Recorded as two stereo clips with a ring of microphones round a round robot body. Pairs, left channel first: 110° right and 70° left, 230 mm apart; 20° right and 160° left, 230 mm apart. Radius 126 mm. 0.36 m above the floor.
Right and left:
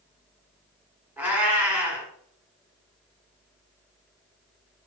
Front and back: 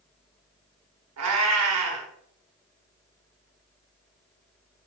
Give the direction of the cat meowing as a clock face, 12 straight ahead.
7 o'clock.